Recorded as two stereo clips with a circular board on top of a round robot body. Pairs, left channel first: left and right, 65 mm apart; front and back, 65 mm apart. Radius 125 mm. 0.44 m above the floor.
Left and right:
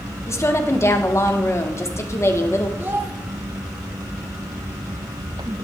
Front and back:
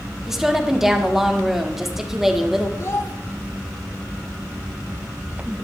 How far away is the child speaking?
About 1.6 m.